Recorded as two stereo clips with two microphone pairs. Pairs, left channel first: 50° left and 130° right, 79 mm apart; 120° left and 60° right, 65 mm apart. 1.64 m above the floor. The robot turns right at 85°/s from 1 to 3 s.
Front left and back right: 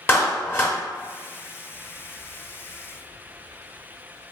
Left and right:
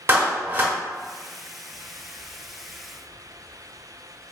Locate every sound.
0.1 s a clap: 5° right, 0.8 m